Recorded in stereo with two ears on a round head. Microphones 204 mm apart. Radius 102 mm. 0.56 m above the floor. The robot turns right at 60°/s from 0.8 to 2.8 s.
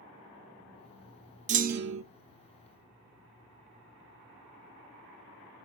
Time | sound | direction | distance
1.5 | a clunk | 150° right | 0.6 m